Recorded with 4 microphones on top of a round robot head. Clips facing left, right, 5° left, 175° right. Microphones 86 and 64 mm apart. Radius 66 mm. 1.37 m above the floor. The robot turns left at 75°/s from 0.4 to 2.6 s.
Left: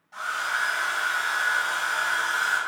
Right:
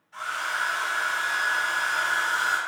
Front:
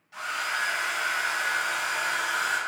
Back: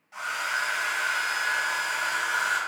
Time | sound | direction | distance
0.1 | a hair dryer | 135° left | 0.9 m